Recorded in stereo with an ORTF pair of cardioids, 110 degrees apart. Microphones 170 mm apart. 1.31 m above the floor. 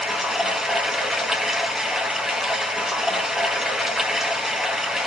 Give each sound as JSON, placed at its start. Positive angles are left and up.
{"t": 0.0, "sound": "running water", "azimuth_deg": -5, "distance_m": 1.1}